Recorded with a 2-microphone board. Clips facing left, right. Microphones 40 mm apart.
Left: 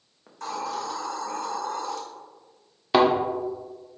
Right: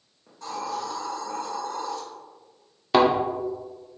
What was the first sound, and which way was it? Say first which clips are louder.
A hiss: left 1 dB; 80° left.